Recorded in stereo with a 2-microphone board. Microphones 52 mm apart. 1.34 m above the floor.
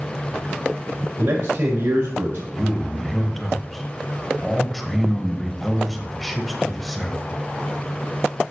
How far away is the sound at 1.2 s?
About 1.9 m.